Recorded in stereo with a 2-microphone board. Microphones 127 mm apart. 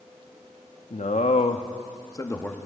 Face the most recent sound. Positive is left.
turn(degrees=10)  # may be behind; listen again after turning